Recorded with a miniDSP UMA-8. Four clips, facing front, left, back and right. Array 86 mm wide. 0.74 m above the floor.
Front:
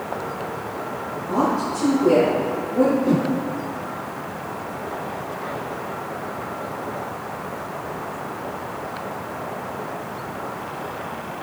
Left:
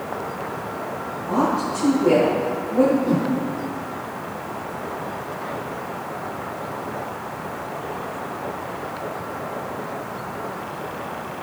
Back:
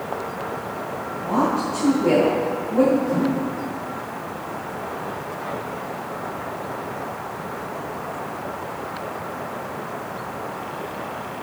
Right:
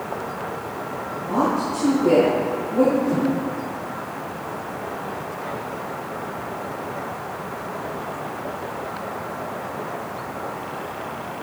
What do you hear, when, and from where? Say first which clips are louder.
1.3 s a woman speaking: even, even; 170° left, 4 m
3.0 s a whoosh: even, front 2 dB; 25° left, 1.8 m